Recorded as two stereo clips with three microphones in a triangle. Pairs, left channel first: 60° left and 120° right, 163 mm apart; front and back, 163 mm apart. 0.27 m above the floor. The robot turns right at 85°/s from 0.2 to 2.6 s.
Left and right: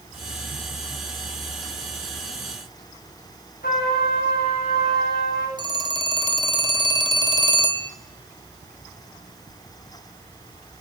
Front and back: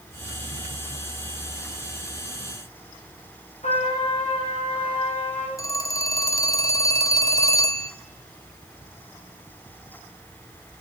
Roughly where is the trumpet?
Ahead left.